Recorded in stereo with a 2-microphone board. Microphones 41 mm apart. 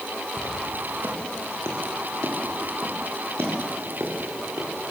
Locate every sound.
0.4 s footsteps: 85° right, 5.5 m; by 4.7 s 70° right (ahead or behind), 8.5 m